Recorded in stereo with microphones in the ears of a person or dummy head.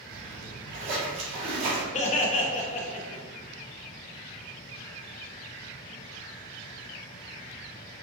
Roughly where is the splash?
Right.